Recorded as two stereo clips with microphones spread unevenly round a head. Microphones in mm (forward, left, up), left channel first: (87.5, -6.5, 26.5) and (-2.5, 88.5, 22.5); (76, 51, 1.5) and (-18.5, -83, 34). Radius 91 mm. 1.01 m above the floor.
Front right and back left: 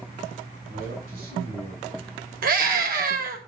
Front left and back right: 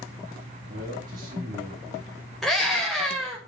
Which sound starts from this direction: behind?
A man speaking, at 0.7 s.